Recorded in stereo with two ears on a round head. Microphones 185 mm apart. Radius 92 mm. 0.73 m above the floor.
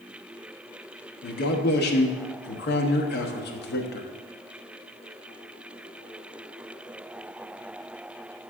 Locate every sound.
1.2 s a man speaking: 50° left (ahead or behind), 1.0 m